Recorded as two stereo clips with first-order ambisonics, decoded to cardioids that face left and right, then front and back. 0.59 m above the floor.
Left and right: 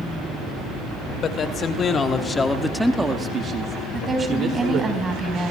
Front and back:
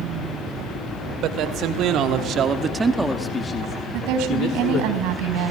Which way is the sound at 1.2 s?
150° left.